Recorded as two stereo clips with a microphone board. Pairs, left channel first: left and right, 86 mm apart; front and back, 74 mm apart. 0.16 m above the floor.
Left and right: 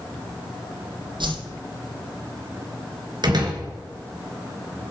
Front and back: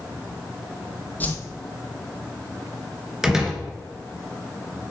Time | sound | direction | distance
1.2 | a whoosh | 65° right | 1.6 m
3.2 | a door slam | 100° right | 2 m